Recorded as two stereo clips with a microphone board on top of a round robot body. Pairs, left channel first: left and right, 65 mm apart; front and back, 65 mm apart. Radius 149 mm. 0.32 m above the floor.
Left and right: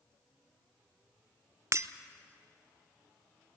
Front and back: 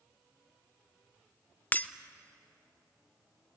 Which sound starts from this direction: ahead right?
Breaking glass, at 1.7 s.